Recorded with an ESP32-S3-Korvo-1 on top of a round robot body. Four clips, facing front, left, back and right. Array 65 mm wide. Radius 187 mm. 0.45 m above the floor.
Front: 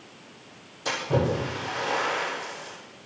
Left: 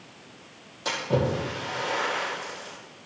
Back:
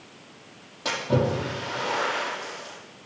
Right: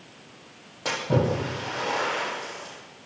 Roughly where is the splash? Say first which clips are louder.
Right 1 dB, back 1 dB; behind right.